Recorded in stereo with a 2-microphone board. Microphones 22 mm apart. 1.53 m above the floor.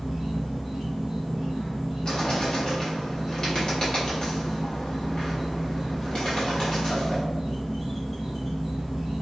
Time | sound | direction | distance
0.0 | an insect | 10° left (ahead or behind) | 1.6 m
2.0 | a bird | 35° left (ahead or behind) | 1.2 m